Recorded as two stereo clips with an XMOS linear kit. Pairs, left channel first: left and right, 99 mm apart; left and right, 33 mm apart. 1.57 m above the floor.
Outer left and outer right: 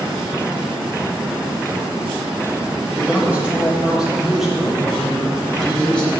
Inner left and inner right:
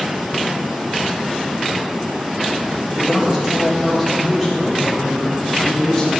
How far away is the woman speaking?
About 3.5 m.